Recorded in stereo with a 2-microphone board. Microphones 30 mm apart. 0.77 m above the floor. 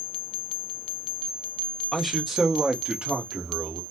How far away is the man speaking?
About 0.8 m.